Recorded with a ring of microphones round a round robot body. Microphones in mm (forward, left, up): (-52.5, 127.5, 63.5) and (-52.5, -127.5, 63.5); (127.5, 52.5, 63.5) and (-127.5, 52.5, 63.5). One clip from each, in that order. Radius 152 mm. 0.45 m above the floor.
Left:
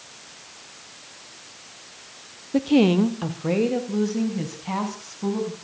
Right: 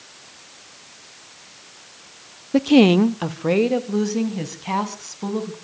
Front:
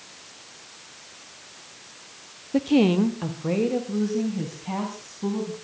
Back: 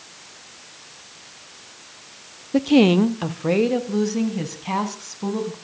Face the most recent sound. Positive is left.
turn(degrees=-130)